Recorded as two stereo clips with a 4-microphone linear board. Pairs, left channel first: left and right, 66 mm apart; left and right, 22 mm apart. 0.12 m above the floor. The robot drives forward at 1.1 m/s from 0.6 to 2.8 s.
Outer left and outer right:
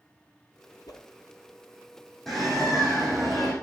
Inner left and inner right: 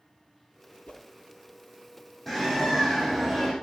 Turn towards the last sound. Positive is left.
turn(degrees=5)  # may be behind; listen again after turning